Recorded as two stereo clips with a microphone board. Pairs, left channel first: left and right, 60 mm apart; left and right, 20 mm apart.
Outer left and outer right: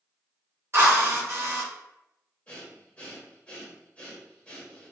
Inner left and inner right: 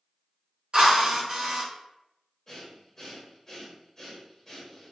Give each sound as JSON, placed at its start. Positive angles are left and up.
{"t": 0.7, "sound": "a drill", "side_deg": -45, "distance_m": 0.8}
{"t": 2.5, "sound": "breathing", "side_deg": 20, "distance_m": 0.9}